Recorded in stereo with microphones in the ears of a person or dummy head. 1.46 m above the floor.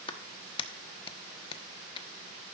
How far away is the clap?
About 1.1 m.